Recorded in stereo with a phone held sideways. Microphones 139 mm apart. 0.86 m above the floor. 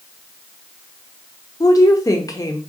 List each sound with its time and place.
1.6 s a woman speaking: 25° left (ahead or behind), 0.7 m